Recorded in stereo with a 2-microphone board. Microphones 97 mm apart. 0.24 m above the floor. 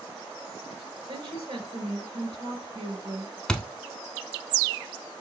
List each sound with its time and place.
1.1 s a woman speaking: 60° right (ahead or behind), 3 m
3.5 s a thud: 10° left (ahead or behind), 0.6 m